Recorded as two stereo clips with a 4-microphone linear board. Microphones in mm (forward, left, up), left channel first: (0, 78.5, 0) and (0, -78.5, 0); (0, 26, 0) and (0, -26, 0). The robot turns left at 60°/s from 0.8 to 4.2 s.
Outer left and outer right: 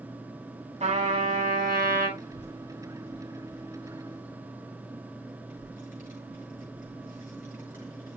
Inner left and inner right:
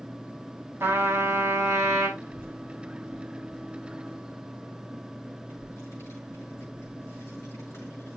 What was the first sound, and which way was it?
A trumpet, 45° right.